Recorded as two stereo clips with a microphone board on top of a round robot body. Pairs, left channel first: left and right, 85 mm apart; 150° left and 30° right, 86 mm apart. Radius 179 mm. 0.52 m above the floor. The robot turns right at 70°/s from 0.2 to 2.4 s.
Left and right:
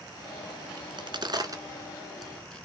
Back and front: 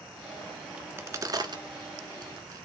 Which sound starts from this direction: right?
A crack, at 0.8 s.